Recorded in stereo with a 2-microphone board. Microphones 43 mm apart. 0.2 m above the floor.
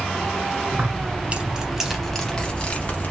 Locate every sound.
0.7 s keys jangling: 45° right (ahead or behind), 1.0 m; by 3.1 s 40° left (ahead or behind), 1.0 m